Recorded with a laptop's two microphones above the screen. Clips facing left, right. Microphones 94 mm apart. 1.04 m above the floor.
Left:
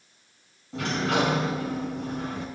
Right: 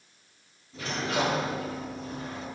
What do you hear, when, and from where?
0.7 s a sliding door: 75° left (ahead or behind), 3.5 m